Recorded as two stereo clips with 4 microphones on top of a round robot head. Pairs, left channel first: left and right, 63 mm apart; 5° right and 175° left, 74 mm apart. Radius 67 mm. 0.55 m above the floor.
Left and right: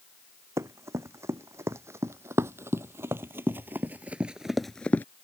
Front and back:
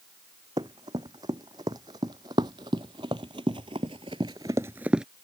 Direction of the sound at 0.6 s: 135° right.